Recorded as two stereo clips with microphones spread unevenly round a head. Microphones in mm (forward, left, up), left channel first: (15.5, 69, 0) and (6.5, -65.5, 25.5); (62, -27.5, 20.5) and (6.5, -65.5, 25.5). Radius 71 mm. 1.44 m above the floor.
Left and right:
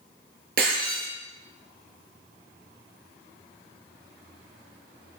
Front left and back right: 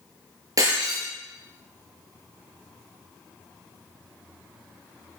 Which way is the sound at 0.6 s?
115° right.